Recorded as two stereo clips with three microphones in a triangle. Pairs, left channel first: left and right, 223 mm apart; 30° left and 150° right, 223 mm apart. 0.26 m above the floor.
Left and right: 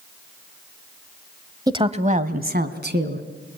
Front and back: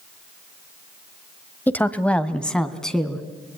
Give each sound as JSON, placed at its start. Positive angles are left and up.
{"t": 1.7, "sound": "a woman speaking", "azimuth_deg": -40, "distance_m": 1.0}